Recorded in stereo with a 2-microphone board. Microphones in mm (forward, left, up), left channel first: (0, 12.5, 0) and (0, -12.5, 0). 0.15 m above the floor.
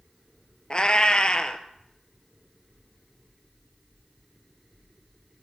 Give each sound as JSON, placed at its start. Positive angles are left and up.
{"t": 0.7, "sound": "a cat meowing", "side_deg": 40, "distance_m": 0.6}